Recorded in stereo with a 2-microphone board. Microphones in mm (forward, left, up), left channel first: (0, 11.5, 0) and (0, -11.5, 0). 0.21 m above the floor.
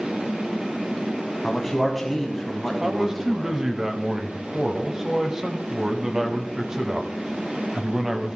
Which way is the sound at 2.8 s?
20° right (ahead or behind).